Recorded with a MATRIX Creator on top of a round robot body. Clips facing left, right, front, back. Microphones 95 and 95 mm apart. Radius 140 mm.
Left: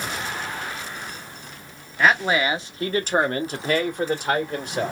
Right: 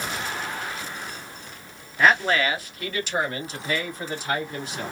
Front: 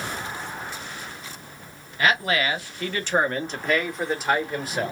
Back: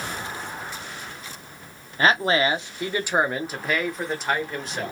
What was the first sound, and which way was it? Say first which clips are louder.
A man speaking: even, back 3 dB; straight behind.